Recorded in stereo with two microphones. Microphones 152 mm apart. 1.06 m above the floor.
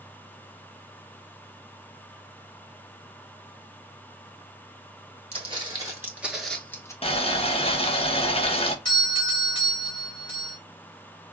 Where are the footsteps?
35° right (ahead or behind), 1.3 m; by 6.9 s 20° left (ahead or behind), 1.0 m.